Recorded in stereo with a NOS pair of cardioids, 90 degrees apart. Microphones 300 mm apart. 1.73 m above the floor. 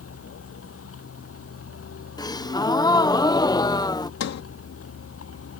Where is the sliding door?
60° left.